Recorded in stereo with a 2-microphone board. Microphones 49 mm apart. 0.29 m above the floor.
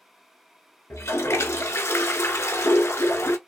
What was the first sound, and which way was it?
A toilet flushing, 65° left (ahead or behind).